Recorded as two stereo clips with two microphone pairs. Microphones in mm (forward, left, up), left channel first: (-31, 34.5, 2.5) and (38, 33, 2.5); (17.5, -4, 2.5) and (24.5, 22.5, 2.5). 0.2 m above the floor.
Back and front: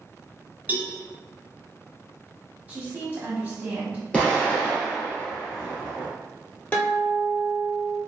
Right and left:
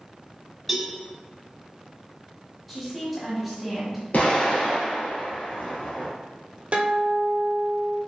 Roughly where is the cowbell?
Ahead.